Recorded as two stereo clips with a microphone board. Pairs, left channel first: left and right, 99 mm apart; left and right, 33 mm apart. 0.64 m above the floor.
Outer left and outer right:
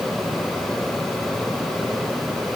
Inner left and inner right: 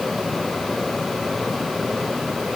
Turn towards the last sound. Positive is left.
No sound to turn to.